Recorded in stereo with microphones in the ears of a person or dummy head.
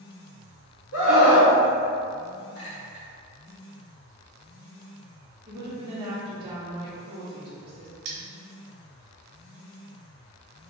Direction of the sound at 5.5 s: 25° right (ahead or behind).